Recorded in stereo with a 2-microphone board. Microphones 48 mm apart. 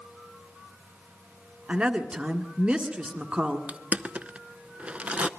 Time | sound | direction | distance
1.7 | a woman speaking | 25° right (ahead or behind) | 1.5 m
3.7 | crushing | 25° right (ahead or behind) | 0.7 m